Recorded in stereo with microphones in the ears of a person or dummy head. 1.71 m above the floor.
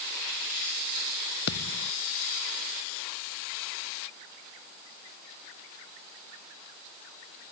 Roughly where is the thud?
Left.